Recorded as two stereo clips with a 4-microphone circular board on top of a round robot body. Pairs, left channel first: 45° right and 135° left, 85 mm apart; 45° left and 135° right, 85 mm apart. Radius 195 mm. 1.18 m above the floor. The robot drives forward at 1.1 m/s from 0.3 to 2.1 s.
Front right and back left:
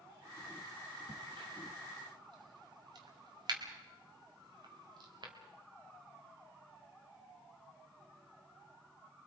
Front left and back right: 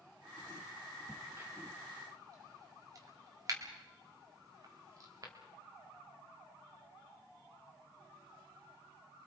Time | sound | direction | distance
1.1 | a crack | 135° left | 0.5 m